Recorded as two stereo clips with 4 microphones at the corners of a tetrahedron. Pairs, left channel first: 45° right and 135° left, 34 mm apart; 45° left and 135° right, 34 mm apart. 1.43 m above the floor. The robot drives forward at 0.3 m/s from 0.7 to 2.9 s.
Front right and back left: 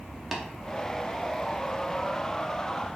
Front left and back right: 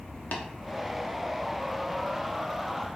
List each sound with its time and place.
0.3 s tapping: 50° left, 0.5 m